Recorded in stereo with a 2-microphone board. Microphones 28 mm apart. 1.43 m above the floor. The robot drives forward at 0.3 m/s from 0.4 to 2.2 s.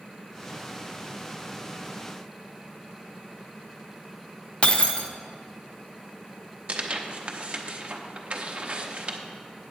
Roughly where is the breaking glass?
Left.